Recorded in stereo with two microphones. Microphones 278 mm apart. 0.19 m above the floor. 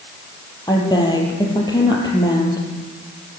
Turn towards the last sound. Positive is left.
turn(degrees=15)  # may be behind; listen again after turning